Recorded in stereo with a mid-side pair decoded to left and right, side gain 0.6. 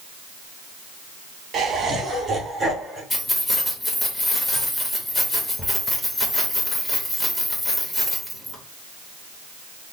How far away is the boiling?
No boiling in this recording.